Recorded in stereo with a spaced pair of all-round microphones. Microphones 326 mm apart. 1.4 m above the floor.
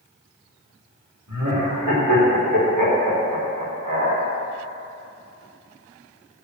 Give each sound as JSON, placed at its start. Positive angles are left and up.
{"t": 1.3, "sound": "laughter", "side_deg": -85, "distance_m": 4.0}